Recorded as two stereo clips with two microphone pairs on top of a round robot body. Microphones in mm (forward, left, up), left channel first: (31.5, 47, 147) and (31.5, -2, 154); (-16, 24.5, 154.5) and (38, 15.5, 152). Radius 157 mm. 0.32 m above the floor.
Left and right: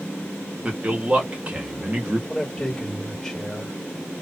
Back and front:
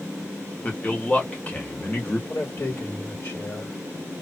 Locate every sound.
0.6 s a man speaking: 140° right, 1.2 m
2.3 s a man speaking: 150° left, 1.8 m